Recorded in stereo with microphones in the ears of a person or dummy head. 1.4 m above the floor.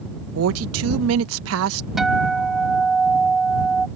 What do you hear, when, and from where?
0.3 s a woman speaking: 85° right
2.0 s a guitar: centre (ahead or behind)